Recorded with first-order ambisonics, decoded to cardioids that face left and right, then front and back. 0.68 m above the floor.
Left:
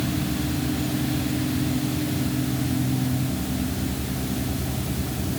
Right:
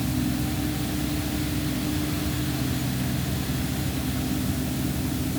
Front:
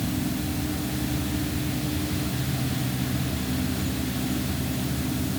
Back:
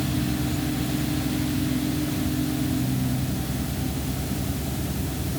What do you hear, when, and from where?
Only background noise.